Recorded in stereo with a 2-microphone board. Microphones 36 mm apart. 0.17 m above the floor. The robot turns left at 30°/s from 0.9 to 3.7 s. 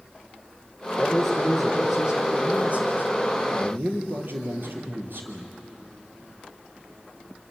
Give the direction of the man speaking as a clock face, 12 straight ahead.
12 o'clock.